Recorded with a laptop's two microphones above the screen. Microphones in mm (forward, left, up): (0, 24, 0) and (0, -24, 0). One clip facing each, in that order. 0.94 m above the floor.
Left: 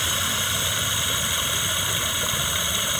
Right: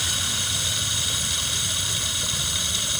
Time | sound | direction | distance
0.0 | running water | 25° left (ahead or behind) | ?